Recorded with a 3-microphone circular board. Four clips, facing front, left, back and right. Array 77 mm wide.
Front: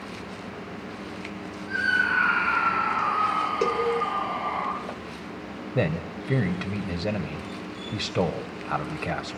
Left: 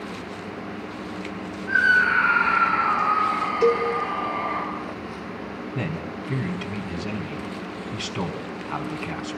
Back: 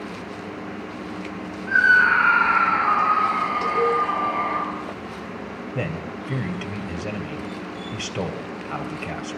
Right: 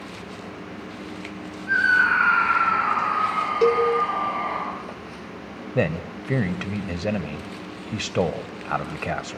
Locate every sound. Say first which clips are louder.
1.7 s a scream: even, back 8 dB; 135° right, 7 m; by 4.6 s 130° right, 11 m
3.6 s a cowbell: right 1 dB, back 3 dB; 45° right, 4.5 m
5.8 s a man speaking: right 8 dB, front 3 dB; 75° right, 3 m